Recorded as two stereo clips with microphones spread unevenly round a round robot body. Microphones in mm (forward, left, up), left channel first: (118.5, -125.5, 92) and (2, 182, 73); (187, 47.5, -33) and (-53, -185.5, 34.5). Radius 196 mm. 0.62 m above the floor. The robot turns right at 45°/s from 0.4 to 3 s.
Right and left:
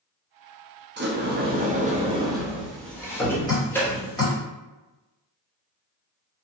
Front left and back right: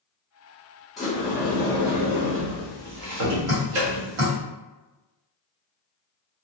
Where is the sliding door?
115° left, 0.7 m; by 4.4 s 155° right, 0.7 m.